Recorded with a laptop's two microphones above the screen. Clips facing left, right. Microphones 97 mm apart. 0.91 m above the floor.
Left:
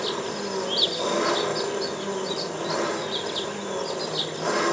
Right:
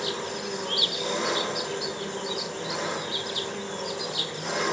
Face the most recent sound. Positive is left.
turn(degrees=75)  # may be behind; listen again after turning